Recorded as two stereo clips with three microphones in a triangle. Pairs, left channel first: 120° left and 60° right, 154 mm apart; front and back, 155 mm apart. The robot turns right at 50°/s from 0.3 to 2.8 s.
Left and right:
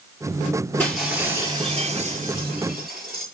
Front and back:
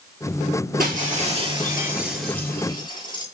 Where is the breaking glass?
160° right, 7.5 m; by 3.2 s 60° right, 7.5 m.